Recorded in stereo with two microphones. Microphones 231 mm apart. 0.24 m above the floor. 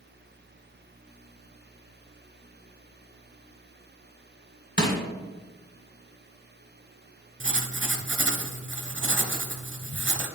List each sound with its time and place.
4.8 s crushing: 50° left (ahead or behind), 2.5 m
7.4 s writing: 50° right (ahead or behind), 0.7 m